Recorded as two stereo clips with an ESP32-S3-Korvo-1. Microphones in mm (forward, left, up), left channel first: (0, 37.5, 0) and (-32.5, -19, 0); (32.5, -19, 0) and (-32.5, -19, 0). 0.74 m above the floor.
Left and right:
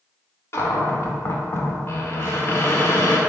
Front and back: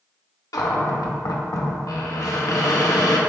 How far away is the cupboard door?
About 0.6 m.